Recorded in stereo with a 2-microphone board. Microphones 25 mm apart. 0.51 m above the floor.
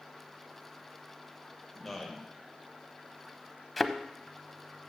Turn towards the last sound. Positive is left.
turn(degrees=0)  # may be behind; listen again after turning